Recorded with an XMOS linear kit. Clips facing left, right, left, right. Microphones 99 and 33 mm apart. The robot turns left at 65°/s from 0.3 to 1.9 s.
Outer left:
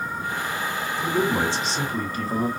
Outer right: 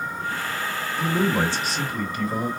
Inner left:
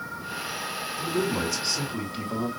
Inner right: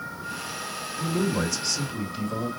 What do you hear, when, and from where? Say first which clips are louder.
1.0 s a man speaking: outer right 1 dB, inner right 1 dB; 165° right, 1.5 m; by 2.5 s 130° left, 1.5 m